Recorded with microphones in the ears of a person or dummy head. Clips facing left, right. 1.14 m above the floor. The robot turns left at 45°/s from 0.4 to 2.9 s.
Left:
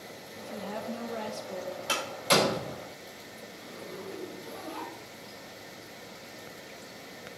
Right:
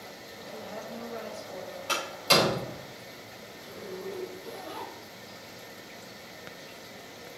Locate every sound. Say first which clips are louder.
0.4 s a woman speaking: left 3 dB; 75° left, 1.1 m; by 1.8 s 10° left, 1.1 m
1.9 s a door slam: right 1 dB; 5° left (ahead or behind), 4 m; by 2.8 s 35° right (ahead or behind), 4 m
3.5 s a zipper: right 3 dB; 20° right (ahead or behind), 2.0 m